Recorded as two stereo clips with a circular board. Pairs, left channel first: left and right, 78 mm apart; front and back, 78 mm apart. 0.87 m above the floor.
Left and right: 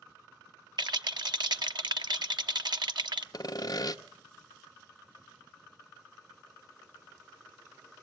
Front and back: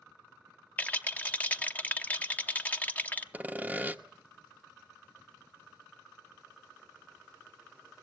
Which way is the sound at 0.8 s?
70° right.